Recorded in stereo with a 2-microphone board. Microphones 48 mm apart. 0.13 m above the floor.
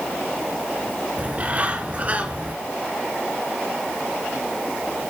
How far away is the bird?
About 1.9 m.